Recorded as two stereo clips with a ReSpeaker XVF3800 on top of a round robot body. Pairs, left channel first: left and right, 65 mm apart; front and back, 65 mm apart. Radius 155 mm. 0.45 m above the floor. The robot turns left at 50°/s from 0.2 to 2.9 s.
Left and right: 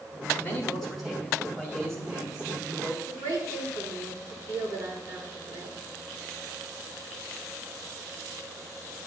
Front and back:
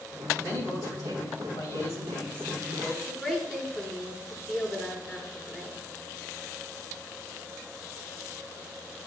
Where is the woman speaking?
100° right, 7.5 m.